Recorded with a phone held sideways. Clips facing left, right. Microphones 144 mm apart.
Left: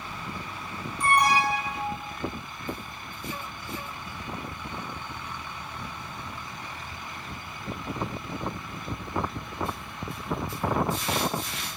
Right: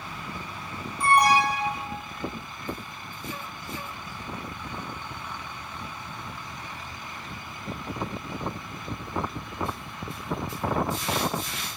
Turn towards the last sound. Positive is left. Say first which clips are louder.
# right 2 dB
turn(degrees=-30)  # may be behind; listen again after turning